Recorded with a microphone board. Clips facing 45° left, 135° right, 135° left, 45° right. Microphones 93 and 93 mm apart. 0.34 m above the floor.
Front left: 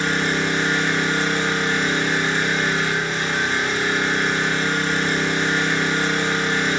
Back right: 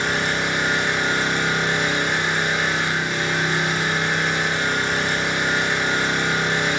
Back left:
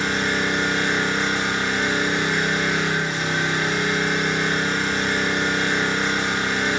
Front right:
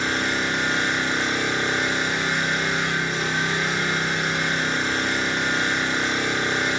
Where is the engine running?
150° left, 0.8 m.